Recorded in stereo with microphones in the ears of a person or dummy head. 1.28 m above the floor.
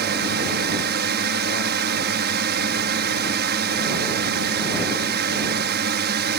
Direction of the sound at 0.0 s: 55° right (ahead or behind).